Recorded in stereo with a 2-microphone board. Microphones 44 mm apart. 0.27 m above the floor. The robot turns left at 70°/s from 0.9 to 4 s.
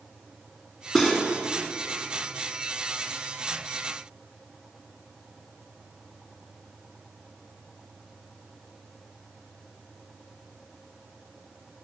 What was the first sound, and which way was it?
Cutlery clinking, 10° left (ahead or behind).